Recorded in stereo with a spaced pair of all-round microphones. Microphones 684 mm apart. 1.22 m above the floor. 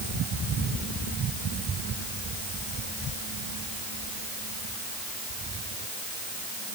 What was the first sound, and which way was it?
Only background noise.